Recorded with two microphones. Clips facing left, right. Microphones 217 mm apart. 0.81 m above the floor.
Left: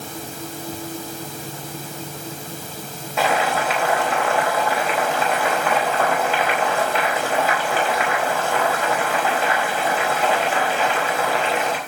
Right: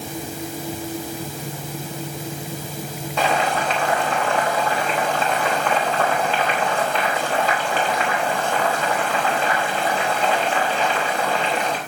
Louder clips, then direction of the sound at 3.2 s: Left 1 dB; 5° left (ahead or behind).